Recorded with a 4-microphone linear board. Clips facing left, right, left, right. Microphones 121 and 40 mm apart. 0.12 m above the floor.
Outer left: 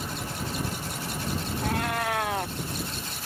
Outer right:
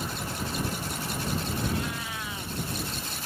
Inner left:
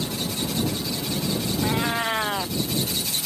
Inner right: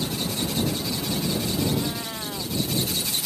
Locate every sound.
1.6 s a cat meowing: 65° left (ahead or behind)